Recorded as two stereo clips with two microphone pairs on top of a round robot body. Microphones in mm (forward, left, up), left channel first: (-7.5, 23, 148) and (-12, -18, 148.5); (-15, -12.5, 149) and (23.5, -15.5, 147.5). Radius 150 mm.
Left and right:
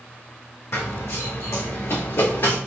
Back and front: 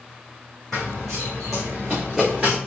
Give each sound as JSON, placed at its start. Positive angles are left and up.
{"t": 0.7, "sound": "running footsteps", "azimuth_deg": 95, "distance_m": 1.3}